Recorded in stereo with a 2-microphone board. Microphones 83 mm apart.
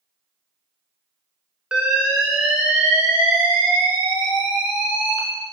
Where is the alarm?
10° right (ahead or behind), 1.4 m.